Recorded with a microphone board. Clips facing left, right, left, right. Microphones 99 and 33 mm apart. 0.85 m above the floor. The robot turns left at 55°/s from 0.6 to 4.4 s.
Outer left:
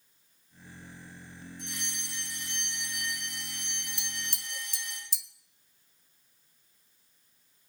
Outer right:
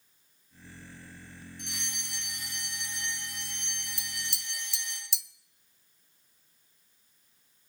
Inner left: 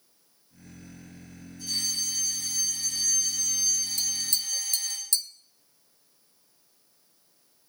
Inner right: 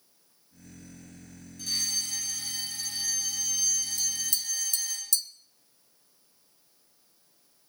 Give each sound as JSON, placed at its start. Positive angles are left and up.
{"t": 1.6, "sound": "a fire alarm", "azimuth_deg": -80, "distance_m": 8.5}
{"t": 4.0, "sound": "tapping", "side_deg": 65, "distance_m": 0.9}